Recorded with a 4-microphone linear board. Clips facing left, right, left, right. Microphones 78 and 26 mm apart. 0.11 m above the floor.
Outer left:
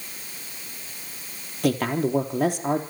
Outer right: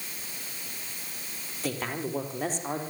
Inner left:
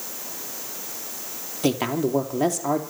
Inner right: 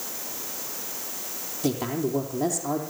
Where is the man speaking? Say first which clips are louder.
Outer left 9 dB, inner left 4 dB; 60° left (ahead or behind), 3.5 m.